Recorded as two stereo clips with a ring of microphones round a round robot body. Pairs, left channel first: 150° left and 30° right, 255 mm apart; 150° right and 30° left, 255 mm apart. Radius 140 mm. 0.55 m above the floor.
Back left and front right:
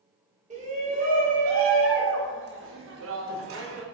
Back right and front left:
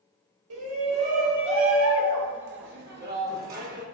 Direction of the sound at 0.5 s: 30° left.